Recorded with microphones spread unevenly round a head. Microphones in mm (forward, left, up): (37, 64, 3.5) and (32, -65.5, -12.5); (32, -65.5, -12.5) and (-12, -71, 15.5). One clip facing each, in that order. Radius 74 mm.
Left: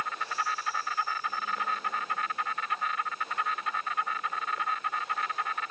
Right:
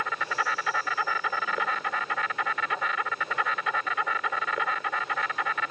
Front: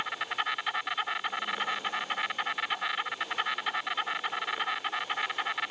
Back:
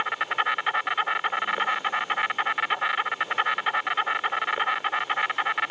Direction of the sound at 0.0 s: 125° right.